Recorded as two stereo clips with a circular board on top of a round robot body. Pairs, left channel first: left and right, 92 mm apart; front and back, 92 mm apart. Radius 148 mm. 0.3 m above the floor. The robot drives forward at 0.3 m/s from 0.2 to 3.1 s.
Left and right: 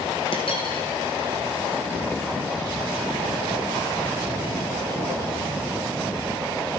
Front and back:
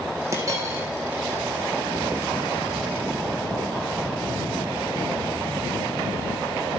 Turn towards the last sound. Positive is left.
turn(degrees=140)